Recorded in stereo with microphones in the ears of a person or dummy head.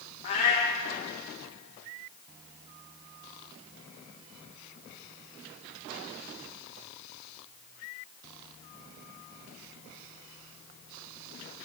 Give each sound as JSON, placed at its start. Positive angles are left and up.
{"t": 0.2, "sound": "a cat meowing", "side_deg": 25, "distance_m": 0.7}